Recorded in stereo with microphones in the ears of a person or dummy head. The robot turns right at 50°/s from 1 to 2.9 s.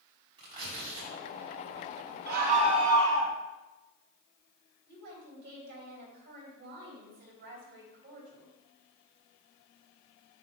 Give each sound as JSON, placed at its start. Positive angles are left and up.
{"t": 0.4, "sound": "tearing paper", "side_deg": -25, "distance_m": 3.5}
{"t": 2.3, "sound": "a scream", "azimuth_deg": -65, "distance_m": 1.9}
{"t": 4.9, "sound": "a woman speaking", "side_deg": -65, "distance_m": 4.0}